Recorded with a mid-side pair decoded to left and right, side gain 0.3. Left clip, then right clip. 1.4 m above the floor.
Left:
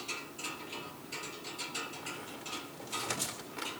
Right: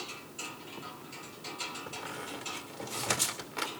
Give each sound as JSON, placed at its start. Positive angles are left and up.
{"t": 1.9, "sound": "a squeak", "azimuth_deg": -70, "distance_m": 2.5}